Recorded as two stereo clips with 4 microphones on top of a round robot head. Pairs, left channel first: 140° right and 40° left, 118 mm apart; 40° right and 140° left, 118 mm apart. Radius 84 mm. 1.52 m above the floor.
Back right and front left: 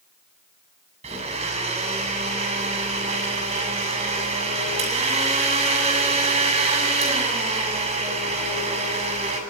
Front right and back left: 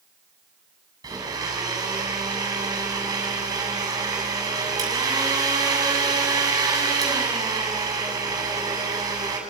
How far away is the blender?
About 8 m.